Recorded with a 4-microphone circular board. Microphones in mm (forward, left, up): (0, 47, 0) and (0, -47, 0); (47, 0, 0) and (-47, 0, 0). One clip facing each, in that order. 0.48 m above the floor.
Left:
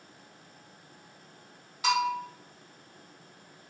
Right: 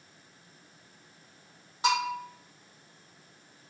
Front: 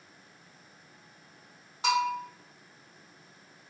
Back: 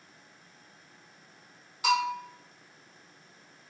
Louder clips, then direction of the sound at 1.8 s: Left 1 dB, even; 40° right.